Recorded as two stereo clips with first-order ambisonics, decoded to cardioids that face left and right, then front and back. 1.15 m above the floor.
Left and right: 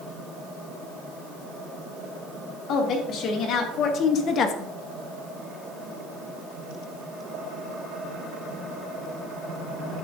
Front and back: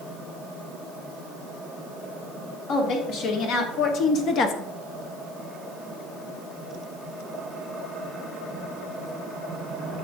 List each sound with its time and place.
2.7 s a woman speaking: 45° left, 2 m